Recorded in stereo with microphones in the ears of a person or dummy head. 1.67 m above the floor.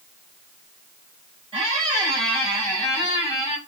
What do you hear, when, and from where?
1.5 s a squeak: 25° right (ahead or behind), 1.7 m